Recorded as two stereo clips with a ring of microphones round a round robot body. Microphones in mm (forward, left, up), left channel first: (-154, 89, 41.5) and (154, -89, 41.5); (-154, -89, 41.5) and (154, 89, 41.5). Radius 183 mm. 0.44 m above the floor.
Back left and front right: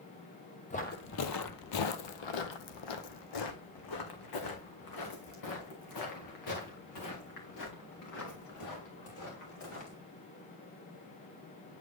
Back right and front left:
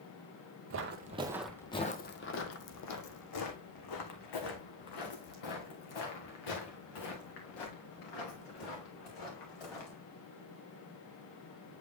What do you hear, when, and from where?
0.7 s footsteps: 80° left, 0.7 m; by 10.0 s 165° right, 5 m